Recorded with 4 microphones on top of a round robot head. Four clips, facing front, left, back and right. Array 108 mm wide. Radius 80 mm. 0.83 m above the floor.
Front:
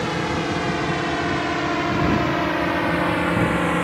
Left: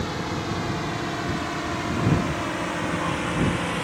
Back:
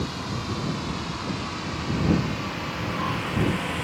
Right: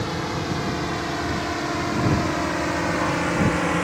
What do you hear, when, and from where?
0.0 s a drone: 5° right; by 3.8 s 30° right